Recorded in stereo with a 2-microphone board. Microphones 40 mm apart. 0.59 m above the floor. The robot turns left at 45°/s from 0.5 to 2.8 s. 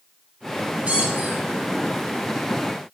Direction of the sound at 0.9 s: 45° right (ahead or behind).